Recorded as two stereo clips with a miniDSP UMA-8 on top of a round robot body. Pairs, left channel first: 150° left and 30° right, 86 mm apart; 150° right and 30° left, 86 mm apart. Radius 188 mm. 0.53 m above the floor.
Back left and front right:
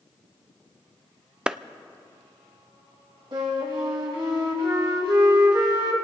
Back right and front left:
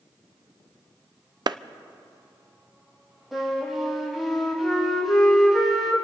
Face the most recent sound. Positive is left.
turn(degrees=-60)